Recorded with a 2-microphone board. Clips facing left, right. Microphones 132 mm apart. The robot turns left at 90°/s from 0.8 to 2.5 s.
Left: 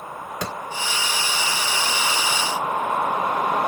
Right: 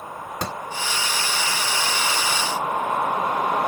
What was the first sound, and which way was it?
A clap, 35° right (ahead or behind).